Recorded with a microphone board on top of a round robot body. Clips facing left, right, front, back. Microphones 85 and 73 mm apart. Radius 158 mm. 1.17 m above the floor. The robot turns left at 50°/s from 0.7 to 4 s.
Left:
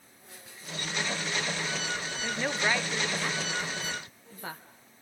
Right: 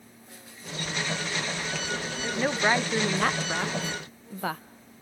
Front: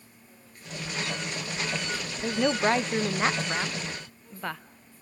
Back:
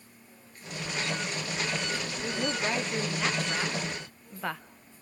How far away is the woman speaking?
About 0.9 m.